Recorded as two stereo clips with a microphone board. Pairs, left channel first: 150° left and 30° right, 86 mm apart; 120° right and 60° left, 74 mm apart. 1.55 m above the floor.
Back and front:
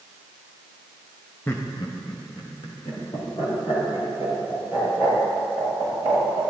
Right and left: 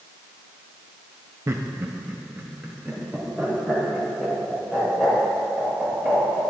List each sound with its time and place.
1.5 s laughter: 90° left, 0.6 m; by 6.4 s 145° left, 7.5 m